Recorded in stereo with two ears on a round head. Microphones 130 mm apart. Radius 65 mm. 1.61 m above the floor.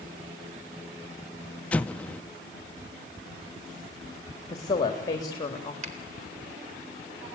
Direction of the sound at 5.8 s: 45° right (ahead or behind).